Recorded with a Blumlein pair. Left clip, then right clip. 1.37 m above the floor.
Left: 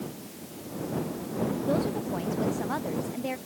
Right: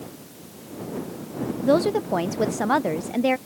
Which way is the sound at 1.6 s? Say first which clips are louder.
Right 12 dB; 60° right.